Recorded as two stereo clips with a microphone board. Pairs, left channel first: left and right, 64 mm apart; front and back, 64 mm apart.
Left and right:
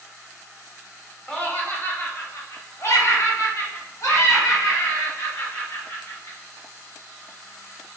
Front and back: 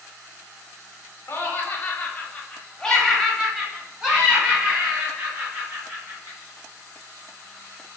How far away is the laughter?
About 1.3 m.